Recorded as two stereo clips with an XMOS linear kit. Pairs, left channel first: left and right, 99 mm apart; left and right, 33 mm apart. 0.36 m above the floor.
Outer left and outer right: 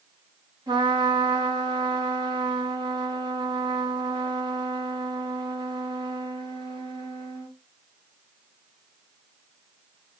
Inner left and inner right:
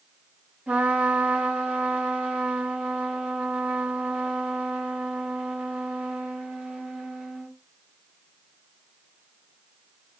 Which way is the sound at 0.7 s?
45° right (ahead or behind).